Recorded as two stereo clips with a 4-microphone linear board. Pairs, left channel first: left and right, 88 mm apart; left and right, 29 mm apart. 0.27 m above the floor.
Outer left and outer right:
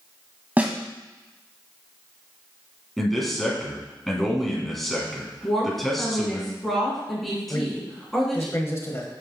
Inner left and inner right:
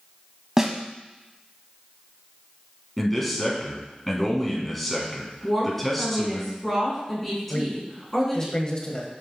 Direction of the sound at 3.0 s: Centre (ahead or behind).